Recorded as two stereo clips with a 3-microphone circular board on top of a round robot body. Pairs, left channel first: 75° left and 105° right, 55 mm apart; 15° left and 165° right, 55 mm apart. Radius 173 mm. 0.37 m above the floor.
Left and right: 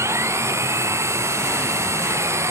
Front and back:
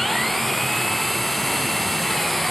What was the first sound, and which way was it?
An engine running, 75° right.